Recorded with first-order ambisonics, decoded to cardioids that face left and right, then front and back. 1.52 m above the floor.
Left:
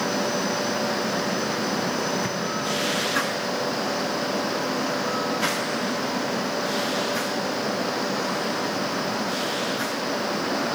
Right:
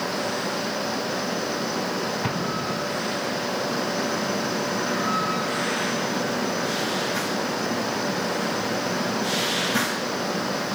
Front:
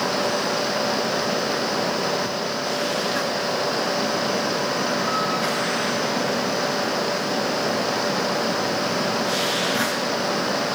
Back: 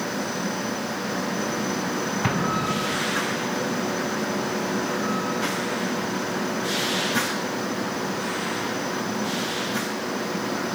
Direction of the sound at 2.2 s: 160° right.